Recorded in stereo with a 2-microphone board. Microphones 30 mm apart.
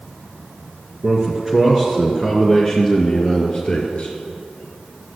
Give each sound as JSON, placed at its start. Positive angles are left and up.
{"t": 1.0, "sound": "a man speaking", "side_deg": -20, "distance_m": 2.5}